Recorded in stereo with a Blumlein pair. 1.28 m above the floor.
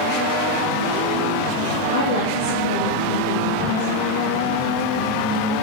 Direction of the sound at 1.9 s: 60° left.